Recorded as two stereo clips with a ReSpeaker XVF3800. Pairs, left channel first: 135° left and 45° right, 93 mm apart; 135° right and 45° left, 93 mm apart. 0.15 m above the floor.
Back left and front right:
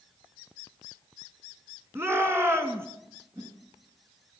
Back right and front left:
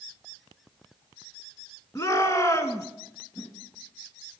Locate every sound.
1.9 s a shout: 100° right, 1.5 m
3.4 s a whoosh: 80° right, 2 m